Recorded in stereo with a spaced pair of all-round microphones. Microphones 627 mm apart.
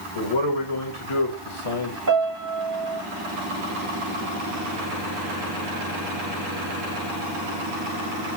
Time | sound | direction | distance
0.1 | a man speaking | 50° left (ahead or behind) | 1.3 m
2.1 | a piano | 30° right (ahead or behind) | 0.7 m